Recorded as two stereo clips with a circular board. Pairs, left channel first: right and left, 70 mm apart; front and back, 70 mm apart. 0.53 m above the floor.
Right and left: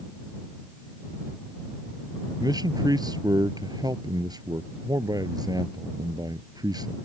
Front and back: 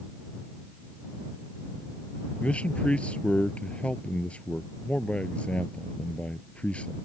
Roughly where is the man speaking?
Left.